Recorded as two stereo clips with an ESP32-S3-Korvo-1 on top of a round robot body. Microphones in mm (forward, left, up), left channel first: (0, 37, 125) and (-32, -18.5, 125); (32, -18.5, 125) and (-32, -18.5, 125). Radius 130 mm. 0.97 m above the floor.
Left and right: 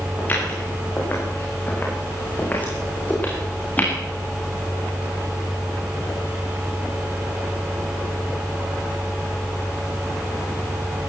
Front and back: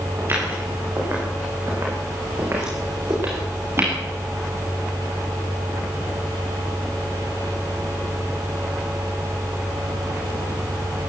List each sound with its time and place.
0.2 s footsteps: 125° left, 8.5 m